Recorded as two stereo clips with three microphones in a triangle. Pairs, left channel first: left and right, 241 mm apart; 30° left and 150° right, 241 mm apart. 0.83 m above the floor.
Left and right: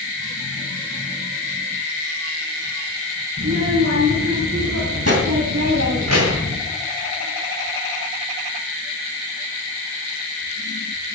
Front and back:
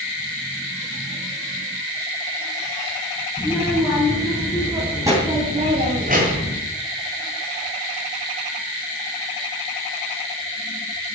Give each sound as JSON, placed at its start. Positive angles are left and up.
{"t": 3.4, "sound": "a child speaking", "azimuth_deg": -55, "distance_m": 5.5}